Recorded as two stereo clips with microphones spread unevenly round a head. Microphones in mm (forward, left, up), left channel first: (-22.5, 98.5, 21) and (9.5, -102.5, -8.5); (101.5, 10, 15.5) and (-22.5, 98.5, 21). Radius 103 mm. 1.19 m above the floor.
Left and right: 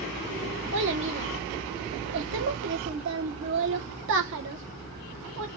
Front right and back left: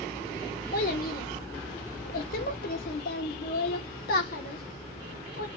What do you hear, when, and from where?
0.7 s a child speaking: 55° right, 0.7 m